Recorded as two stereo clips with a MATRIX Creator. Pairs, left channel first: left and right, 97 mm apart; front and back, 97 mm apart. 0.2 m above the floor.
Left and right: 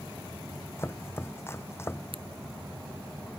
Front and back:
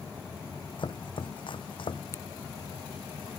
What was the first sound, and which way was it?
Chopping, 30° left.